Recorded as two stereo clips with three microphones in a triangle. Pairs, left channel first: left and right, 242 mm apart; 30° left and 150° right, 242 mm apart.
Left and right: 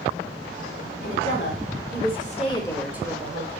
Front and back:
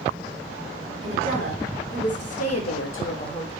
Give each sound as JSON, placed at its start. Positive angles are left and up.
{"t": 1.0, "sound": "a woman speaking", "azimuth_deg": 60, "distance_m": 1.3}